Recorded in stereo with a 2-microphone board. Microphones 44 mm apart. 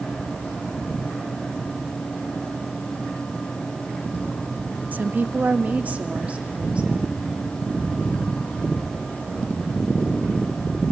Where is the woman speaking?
35° right (ahead or behind), 0.6 m; by 7.3 s 25° right (ahead or behind), 2.5 m.